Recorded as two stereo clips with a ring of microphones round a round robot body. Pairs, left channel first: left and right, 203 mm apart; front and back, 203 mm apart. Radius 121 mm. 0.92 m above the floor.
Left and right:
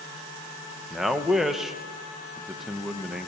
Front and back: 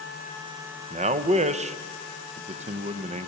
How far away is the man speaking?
About 0.5 m.